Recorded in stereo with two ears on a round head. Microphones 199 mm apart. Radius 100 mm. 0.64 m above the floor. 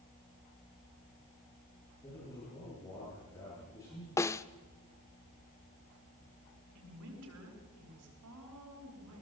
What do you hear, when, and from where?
2.0 s a man speaking: 15° left (ahead or behind), 10 m
4.2 s a snare drum: 15° left (ahead or behind), 0.6 m
6.8 s a woman speaking: 80° right, 8 m